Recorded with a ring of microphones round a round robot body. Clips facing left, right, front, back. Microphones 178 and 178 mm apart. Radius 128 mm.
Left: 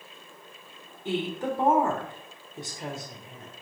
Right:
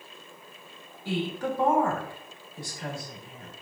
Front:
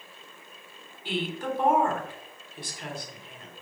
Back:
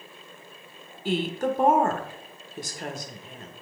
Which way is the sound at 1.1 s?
155° left.